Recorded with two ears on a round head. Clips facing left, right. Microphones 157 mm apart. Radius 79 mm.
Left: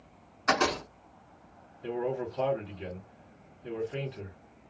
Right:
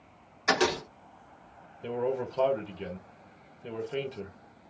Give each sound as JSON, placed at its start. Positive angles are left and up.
{"t": 0.5, "sound": "a door slam", "side_deg": -15, "distance_m": 1.2}
{"t": 1.8, "sound": "a man speaking", "side_deg": -70, "distance_m": 1.3}